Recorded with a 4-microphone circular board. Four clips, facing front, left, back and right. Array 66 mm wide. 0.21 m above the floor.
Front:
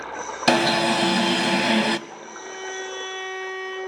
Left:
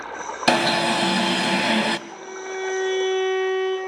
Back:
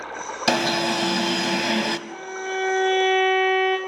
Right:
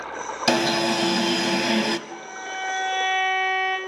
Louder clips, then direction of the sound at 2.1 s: Left 1 dB, back 7 dB; straight behind.